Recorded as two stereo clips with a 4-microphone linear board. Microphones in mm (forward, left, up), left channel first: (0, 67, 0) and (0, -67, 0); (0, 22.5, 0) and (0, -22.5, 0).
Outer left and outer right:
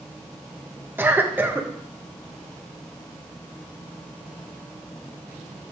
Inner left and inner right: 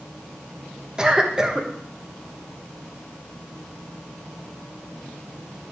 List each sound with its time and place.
1.0 s a cough: 15° right (ahead or behind), 1.3 m